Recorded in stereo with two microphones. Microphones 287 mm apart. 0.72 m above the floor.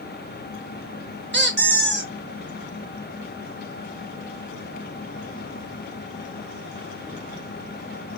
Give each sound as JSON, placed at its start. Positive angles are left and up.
{"t": 1.3, "sound": "a squeak", "side_deg": -35, "distance_m": 0.8}